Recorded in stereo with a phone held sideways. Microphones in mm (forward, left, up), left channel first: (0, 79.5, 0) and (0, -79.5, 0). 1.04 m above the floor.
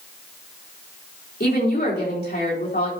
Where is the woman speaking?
65° left (ahead or behind), 3.5 m.